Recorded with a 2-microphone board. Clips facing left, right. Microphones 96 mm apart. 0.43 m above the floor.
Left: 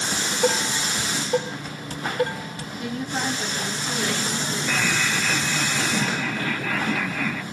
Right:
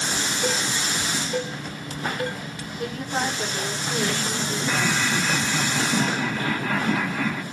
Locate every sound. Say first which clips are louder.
0.1 s dishes clattering: left 5 dB; 35° left (ahead or behind), 0.9 m
2.8 s a woman speaking: right 1 dB; 40° right (ahead or behind), 1.7 m
4.7 s laughter: right 1 dB; 25° right (ahead or behind), 0.9 m